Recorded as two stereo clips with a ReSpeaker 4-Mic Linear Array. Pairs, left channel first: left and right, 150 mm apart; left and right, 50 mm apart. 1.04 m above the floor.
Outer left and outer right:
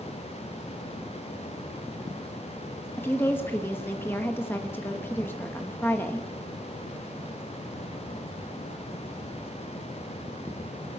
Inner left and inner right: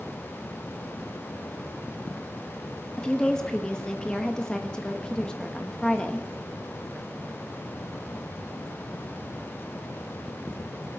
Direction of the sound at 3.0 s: 15° left (ahead or behind).